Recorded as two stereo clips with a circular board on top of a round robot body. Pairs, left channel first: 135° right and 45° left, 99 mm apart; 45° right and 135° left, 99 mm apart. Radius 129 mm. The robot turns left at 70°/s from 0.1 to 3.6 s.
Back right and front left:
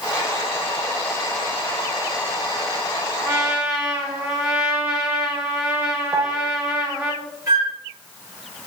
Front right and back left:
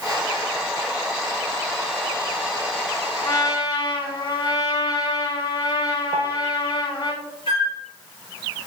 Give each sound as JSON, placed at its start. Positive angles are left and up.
{"t": 3.2, "sound": "a trumpet", "azimuth_deg": 10, "distance_m": 3.0}
{"t": 6.1, "sound": "a piano", "azimuth_deg": 110, "distance_m": 0.7}
{"t": 7.5, "sound": "a flute", "azimuth_deg": -15, "distance_m": 3.0}